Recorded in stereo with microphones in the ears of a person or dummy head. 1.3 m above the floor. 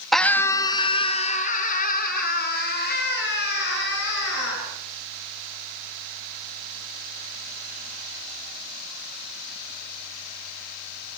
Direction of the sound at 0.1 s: Centre (ahead or behind).